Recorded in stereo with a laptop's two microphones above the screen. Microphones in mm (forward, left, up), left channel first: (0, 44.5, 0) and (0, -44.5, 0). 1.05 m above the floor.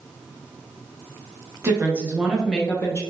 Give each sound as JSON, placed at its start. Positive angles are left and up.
{"t": 1.6, "sound": "a woman speaking", "side_deg": -30, "distance_m": 0.9}